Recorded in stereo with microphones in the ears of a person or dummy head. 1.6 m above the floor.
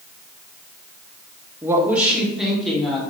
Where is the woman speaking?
15° right (ahead or behind), 0.8 m; by 3.0 s centre (ahead or behind), 1.8 m.